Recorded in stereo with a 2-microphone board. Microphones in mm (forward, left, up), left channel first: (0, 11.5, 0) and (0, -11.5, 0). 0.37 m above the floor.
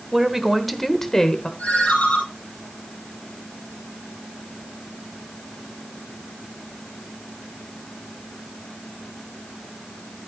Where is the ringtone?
85° left, 4 m.